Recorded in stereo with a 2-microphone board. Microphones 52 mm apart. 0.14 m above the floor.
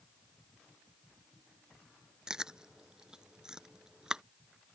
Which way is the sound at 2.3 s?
15° right (ahead or behind).